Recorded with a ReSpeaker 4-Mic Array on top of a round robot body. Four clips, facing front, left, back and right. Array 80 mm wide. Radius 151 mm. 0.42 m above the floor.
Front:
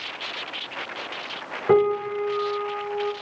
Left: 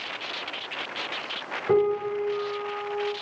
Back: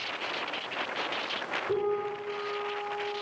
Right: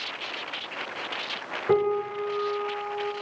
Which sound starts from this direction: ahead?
A piano, at 1.7 s.